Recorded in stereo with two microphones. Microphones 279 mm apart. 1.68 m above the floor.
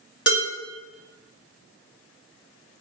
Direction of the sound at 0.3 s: 45° left (ahead or behind).